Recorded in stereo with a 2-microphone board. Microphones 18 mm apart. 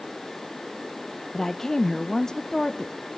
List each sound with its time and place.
1.3 s a woman speaking: 25° left (ahead or behind), 0.7 m